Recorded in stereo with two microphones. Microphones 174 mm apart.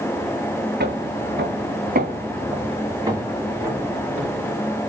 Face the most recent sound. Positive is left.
turn(degrees=-5)  # may be behind; listen again after turning